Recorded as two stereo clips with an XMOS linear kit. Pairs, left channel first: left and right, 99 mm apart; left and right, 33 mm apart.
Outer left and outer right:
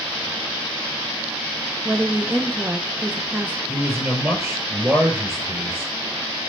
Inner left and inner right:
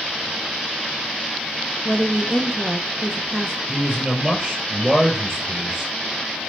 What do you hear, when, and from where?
1.9 s a woman speaking: 15° right (ahead or behind), 0.7 m
3.7 s a man speaking: 25° right (ahead or behind), 4 m